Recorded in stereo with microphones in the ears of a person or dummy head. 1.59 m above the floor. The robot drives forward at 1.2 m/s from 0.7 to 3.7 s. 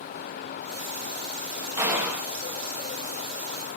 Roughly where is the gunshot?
Centre.